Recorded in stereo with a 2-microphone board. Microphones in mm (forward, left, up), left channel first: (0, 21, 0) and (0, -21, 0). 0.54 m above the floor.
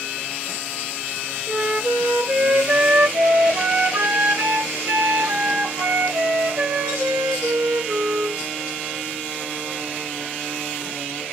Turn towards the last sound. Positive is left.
turn(degrees=-50)  # may be behind; listen again after turning